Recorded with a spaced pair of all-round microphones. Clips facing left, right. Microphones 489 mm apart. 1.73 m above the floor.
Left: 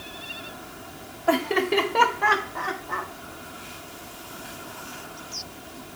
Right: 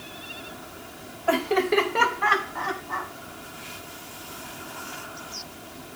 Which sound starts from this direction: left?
Laughter, at 1.3 s.